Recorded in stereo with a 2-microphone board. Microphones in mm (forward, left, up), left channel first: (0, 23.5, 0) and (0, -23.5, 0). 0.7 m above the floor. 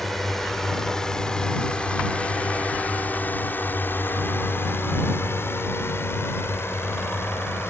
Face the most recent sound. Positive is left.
turn(degrees=60)  # may be behind; listen again after turning